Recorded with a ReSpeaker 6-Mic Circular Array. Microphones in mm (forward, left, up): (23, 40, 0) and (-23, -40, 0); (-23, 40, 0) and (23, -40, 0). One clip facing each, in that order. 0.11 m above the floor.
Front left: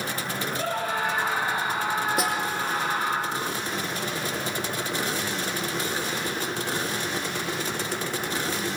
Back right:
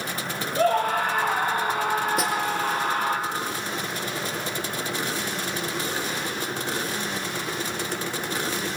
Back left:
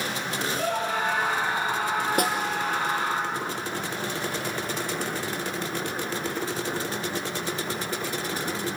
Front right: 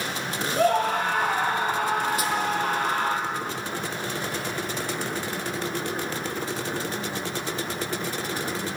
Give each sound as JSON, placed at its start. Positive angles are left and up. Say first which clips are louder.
{"t": 0.6, "sound": "a scream", "louder": "back right 8 dB, front right 7 dB", "azimuth_deg": -90, "distance_m": 4.0}
{"t": 2.2, "sound": "a snare drum", "louder": "back right 1 dB, back left 2 dB", "azimuth_deg": 150, "distance_m": 3.0}